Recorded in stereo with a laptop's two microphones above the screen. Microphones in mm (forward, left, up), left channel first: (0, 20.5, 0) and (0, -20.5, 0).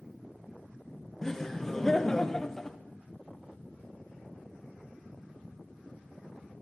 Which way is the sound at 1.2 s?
15° left (ahead or behind).